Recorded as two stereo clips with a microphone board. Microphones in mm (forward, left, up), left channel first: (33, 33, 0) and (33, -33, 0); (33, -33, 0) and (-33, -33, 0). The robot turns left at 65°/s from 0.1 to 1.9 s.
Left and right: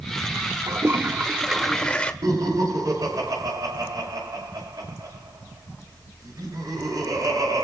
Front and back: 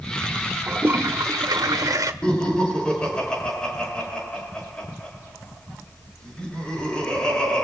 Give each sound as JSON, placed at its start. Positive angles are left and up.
{"t": 0.7, "sound": "a toilet flushing", "azimuth_deg": -115, "distance_m": 1.3}
{"t": 2.2, "sound": "laughter", "azimuth_deg": -75, "distance_m": 6.5}